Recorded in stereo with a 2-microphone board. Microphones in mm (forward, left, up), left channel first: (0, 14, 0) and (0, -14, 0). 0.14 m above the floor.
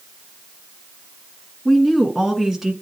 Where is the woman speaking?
10° left (ahead or behind), 1.5 m; by 2.7 s 10° right (ahead or behind), 1.4 m.